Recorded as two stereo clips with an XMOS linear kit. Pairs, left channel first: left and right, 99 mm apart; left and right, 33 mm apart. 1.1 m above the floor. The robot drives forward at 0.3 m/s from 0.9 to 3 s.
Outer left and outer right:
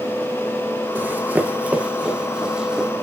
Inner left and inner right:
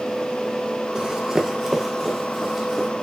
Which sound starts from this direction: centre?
Running footsteps, at 0.9 s.